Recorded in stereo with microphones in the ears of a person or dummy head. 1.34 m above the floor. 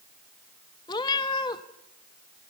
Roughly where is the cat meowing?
Left.